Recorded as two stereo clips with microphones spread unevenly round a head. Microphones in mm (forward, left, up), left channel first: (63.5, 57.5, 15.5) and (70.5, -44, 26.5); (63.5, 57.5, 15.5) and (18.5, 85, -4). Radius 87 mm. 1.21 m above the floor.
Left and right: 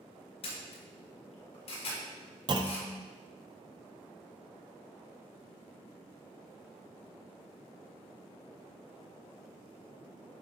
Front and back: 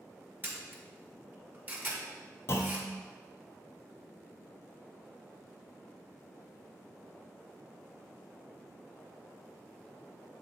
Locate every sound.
0.4 s a camera shutter: 100° left, 2.0 m
2.5 s a clunk: 55° right, 0.6 m